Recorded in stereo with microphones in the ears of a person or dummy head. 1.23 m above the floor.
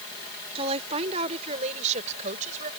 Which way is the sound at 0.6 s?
30° right (ahead or behind).